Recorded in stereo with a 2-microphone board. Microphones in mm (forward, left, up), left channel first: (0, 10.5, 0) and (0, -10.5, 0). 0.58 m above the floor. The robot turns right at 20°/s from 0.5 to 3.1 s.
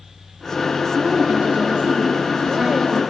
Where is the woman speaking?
95° right, 5 m; by 3.0 s 55° right, 5 m.